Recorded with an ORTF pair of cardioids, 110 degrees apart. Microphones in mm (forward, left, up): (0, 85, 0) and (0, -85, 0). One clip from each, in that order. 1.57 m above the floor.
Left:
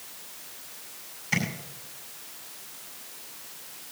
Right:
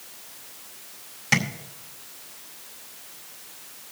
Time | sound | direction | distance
1.3 | tapping | 70° right | 4 m